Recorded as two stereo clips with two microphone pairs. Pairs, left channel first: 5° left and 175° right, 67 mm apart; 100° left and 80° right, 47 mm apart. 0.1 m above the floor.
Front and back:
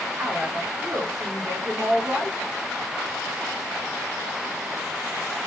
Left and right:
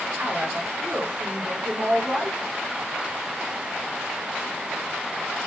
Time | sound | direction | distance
0.2 | a woman speaking | 135° right | 9.5 m